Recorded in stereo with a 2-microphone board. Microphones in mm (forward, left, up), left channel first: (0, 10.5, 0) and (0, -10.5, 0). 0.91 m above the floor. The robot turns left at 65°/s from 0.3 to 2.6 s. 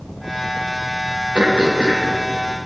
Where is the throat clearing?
80° right, 1.1 m; by 2.1 s 125° right, 1.1 m.